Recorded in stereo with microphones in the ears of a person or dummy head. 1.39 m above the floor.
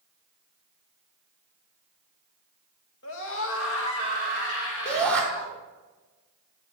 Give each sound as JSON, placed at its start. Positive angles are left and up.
{"t": 3.0, "sound": "a scream", "side_deg": 75, "distance_m": 2.0}
{"t": 4.8, "sound": "a shout", "side_deg": 5, "distance_m": 4.0}